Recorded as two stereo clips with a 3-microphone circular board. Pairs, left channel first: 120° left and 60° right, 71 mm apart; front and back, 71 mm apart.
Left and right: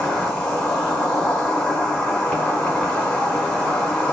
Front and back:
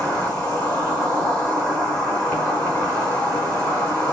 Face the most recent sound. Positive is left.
turn(degrees=45)